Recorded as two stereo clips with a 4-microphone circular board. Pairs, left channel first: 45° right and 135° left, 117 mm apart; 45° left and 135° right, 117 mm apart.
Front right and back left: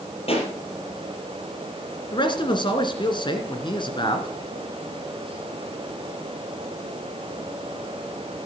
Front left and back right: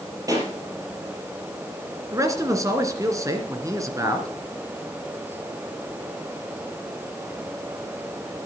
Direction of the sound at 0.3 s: 75° right.